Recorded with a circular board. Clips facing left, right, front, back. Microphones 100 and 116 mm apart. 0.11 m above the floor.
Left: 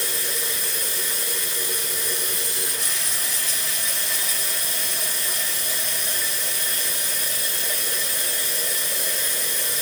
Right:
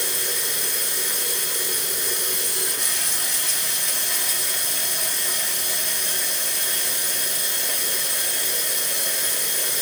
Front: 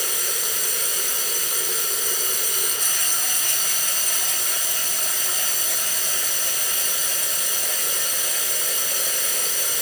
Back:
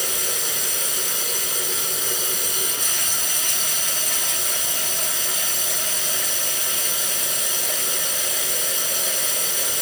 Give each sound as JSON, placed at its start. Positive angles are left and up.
{"t": 0.0, "sound": "running water", "azimuth_deg": -115, "distance_m": 3.5}